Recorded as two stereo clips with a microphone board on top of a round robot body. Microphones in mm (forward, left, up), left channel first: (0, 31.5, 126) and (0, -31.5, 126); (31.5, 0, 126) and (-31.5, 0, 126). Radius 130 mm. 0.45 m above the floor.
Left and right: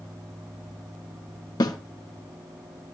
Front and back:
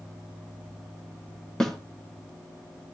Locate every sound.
1.6 s a snare drum: 85° left, 1.3 m